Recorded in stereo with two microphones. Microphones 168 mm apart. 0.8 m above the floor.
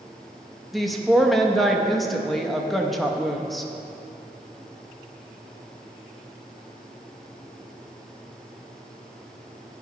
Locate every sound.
0.7 s a woman speaking: centre (ahead or behind), 0.6 m